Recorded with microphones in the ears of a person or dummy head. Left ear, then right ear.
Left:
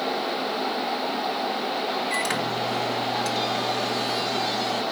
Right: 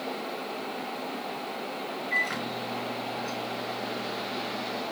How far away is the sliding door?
No sliding door in this recording.